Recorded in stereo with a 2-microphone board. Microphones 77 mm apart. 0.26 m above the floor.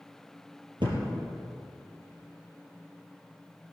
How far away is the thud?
About 3.5 m.